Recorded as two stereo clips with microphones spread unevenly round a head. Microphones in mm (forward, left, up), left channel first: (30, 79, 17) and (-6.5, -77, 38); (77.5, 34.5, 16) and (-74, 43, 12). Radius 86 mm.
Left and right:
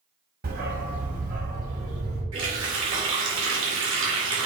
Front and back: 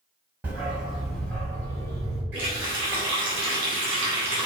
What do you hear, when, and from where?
0.4 s a dog barking: 105° right, 1.9 m; by 2.2 s 70° right, 2.0 m
2.3 s a running tap: 100° right, 3 m